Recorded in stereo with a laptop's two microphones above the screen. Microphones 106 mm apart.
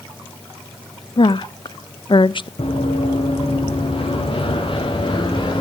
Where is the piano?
I don't hear a piano.